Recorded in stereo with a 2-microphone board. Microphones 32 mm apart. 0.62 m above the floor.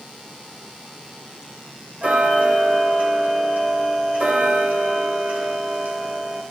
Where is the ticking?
70° right (ahead or behind), 2.5 m.